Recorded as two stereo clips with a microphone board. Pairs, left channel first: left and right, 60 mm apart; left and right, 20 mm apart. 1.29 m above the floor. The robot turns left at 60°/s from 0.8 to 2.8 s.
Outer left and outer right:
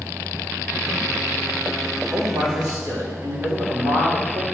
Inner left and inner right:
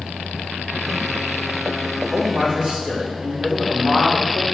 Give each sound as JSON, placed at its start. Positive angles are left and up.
{"t": 2.1, "sound": "a man speaking", "azimuth_deg": -60, "distance_m": 3.0}